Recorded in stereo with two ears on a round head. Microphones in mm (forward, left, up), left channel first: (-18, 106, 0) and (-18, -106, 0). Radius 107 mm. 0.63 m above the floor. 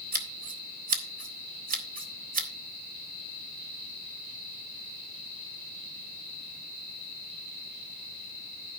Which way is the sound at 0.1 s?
40° right (ahead or behind).